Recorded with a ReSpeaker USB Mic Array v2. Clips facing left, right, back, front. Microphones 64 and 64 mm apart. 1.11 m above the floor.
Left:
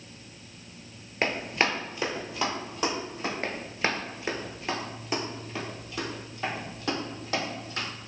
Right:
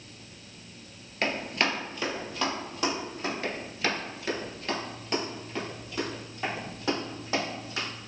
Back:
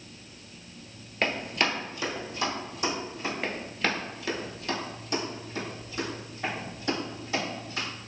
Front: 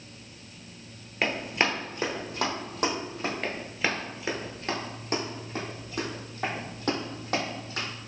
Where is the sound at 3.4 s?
100° left, 1.3 m; by 7.9 s 10° right, 3.5 m.